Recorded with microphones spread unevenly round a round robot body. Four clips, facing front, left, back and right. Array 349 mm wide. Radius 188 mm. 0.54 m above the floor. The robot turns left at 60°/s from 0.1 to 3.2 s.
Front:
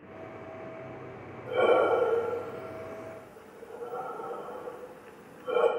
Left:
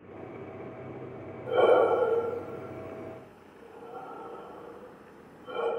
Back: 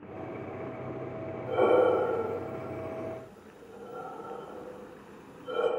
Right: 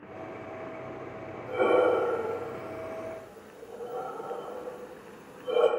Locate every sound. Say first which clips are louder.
1.5 s breathing: left 2 dB, even; 70° left, 2 m; by 5.7 s 35° right, 2 m